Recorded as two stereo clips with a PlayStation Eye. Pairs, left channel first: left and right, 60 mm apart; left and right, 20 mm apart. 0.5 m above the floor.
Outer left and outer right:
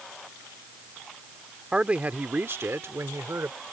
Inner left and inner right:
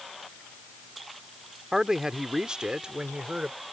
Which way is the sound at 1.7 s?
20° right (ahead or behind).